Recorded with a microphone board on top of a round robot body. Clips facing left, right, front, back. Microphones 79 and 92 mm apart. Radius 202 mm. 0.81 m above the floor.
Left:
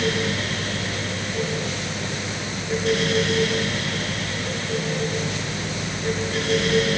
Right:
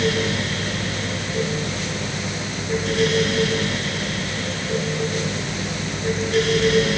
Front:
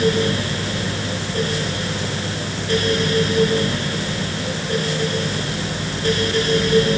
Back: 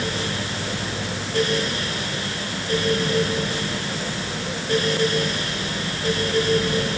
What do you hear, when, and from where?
Only background noise.